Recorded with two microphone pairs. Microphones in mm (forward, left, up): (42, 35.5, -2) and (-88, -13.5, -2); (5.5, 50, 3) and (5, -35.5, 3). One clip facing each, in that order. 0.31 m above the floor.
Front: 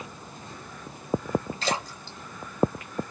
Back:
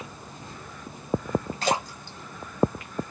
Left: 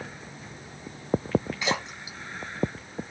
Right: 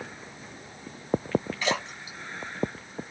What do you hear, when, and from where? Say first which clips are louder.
1.6 s a splash: back 3 dB, even; 170° left, 2.0 m